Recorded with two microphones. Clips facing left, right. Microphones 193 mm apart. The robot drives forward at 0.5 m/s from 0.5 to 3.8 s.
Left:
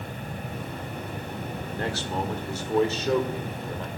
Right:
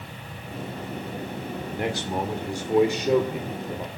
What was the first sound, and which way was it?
A man speaking, 15° right (ahead or behind).